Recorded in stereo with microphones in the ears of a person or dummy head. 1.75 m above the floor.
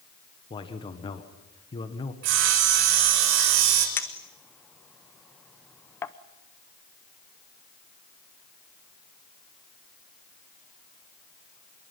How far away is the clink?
About 0.7 m.